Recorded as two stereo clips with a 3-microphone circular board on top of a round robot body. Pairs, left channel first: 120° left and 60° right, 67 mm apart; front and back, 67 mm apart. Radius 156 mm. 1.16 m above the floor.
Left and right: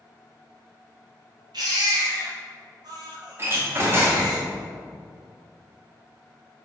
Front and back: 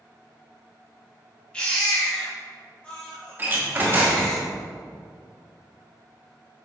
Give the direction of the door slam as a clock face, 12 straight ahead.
4 o'clock.